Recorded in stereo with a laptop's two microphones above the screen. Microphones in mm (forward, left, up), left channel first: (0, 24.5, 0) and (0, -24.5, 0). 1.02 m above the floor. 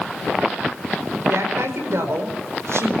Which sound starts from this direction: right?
A woman speaking, at 1.3 s.